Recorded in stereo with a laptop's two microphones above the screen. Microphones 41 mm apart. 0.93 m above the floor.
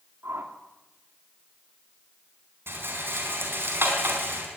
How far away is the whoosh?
About 2 m.